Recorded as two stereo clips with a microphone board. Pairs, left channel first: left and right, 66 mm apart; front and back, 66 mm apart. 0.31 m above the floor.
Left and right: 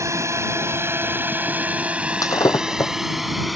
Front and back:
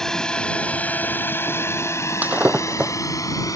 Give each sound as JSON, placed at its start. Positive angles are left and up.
{"t": 0.0, "sound": "a drone", "azimuth_deg": -80}
{"t": 2.2, "sound": "breaking glass", "azimuth_deg": 115}